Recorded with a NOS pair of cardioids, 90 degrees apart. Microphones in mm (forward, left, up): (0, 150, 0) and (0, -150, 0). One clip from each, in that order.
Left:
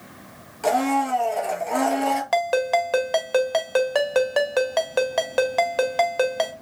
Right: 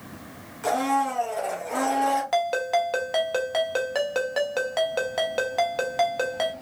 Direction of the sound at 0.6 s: 35° left.